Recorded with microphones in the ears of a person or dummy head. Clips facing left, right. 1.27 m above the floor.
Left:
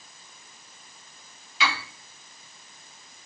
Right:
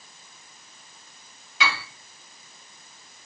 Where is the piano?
45° right (ahead or behind), 1.8 m.